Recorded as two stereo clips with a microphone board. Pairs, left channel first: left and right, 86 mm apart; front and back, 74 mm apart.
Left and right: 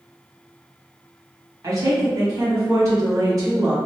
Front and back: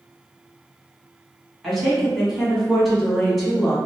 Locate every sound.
1.6 s a woman speaking: 90° right, 1.4 m